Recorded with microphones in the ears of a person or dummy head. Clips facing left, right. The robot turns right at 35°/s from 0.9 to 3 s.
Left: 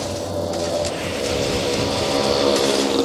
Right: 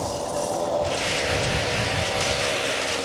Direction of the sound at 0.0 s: 35° left.